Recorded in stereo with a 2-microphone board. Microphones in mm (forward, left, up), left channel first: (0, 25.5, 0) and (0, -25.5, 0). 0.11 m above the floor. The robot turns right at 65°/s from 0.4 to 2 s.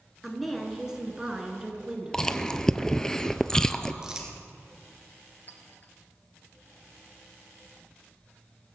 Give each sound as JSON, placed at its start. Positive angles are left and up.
{"t": 0.2, "sound": "a woman speaking", "side_deg": 0, "distance_m": 1.6}
{"t": 2.1, "sound": "chewing", "side_deg": 15, "distance_m": 0.5}
{"t": 4.0, "sound": "crumpling", "side_deg": -15, "distance_m": 1.9}
{"t": 5.5, "sound": "a clink", "side_deg": 40, "distance_m": 1.3}